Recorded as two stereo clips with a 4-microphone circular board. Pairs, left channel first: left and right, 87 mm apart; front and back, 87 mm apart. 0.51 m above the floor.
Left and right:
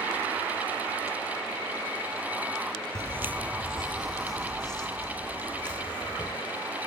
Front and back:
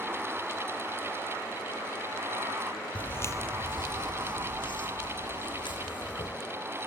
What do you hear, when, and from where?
3.0 s footsteps: 65° right, 0.6 m; by 6.3 s 15° left, 2.5 m